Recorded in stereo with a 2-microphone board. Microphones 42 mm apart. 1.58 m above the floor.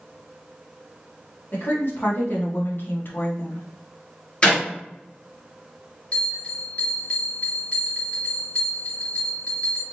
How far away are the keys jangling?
No keys jangling in this recording.